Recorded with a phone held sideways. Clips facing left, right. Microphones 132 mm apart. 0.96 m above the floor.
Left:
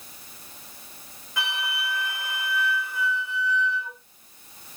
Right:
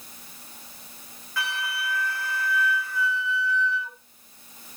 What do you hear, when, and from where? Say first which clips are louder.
1.4 s a flute: even; 20° left (ahead or behind), 1.3 m